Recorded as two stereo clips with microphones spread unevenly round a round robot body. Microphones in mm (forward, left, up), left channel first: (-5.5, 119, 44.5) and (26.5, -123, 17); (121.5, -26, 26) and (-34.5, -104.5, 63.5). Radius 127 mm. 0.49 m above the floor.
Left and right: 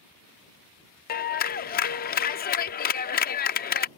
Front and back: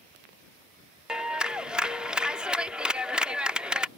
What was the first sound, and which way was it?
A clap, 105° left.